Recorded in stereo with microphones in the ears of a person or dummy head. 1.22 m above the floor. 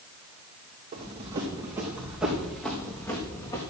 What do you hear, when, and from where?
0.9 s running footsteps: 30° right (ahead or behind), 3 m; by 3.6 s 25° left (ahead or behind), 3.5 m